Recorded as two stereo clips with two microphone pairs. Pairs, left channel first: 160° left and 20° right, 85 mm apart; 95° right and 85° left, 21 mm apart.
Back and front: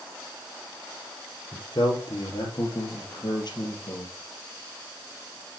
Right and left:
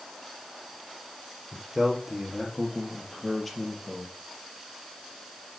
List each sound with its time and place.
1.5 s a man speaking: 155° left, 3.5 m; by 4.1 s 175° right, 3.5 m